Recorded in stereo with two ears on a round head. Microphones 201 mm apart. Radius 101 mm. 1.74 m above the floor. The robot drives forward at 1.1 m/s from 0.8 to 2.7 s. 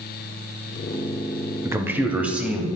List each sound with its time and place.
1.6 s a man speaking: 15° right (ahead or behind), 0.6 m; by 2.7 s 5° right (ahead or behind), 1.7 m